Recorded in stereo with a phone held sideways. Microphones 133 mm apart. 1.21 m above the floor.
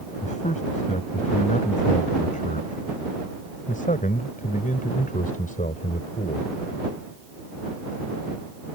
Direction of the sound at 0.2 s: 65° left (ahead or behind).